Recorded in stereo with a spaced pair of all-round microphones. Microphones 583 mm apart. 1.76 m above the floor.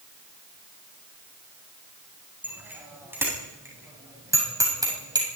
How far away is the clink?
No clink in this recording.